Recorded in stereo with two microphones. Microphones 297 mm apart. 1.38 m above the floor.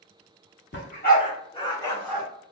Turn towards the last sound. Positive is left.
turn(degrees=0)  # may be behind; listen again after turning